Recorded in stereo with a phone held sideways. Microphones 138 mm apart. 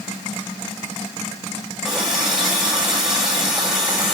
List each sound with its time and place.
1.8 s a running tap: 5° right (ahead or behind), 3 m